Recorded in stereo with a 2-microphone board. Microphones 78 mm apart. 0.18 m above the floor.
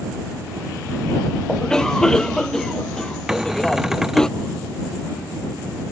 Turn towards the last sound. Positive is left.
turn(degrees=-5)  # may be behind; listen again after turning